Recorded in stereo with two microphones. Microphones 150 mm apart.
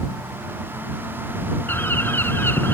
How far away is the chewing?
I don't hear chewing.